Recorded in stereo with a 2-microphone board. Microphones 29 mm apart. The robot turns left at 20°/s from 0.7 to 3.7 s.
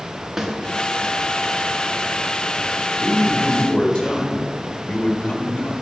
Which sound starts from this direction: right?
A snare drum, at 0.4 s.